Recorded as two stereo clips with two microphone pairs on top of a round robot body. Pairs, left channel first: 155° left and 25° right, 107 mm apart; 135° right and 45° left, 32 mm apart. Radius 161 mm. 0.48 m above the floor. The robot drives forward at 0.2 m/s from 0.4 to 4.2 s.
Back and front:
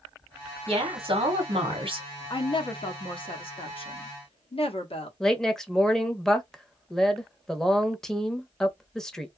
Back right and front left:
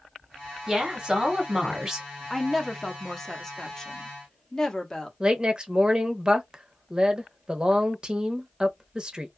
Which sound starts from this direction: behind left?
A woman speaking, at 2.3 s.